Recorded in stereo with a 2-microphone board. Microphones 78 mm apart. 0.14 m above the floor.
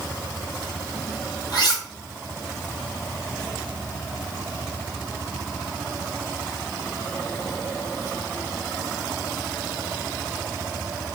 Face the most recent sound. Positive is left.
turn(degrees=60)  # may be behind; listen again after turning